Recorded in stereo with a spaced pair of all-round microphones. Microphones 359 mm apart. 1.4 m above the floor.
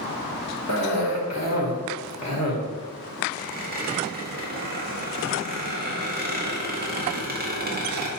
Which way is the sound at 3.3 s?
25° right (ahead or behind).